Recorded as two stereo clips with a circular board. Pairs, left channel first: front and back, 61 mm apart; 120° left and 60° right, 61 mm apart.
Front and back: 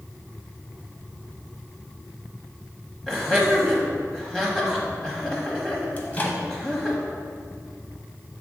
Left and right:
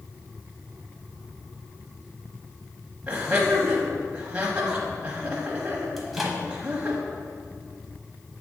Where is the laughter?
85° right, 1.0 m.